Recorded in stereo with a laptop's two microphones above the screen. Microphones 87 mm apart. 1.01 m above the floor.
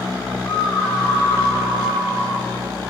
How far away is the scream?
About 7.5 m.